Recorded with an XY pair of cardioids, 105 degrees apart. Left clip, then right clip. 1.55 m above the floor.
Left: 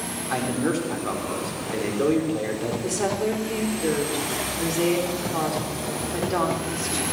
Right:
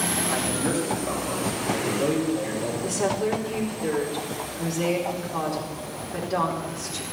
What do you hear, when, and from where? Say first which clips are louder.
0.3 s a man speaking: left 1 dB; 50° left, 4 m
2.8 s a woman speaking: even; 25° left, 4.5 m